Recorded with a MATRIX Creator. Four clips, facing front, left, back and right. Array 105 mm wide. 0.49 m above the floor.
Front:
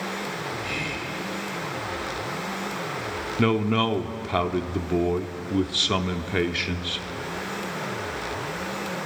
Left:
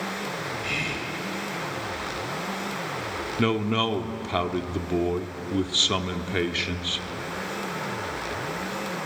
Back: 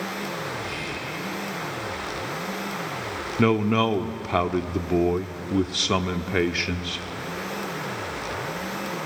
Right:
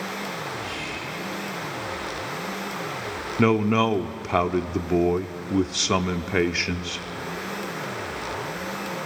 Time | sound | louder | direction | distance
0.6 | whispering | left 1 dB, front 1 dB | 70° left | 2.5 m
3.4 | a man speaking | right 5 dB, back 2 dB | 110° right | 0.7 m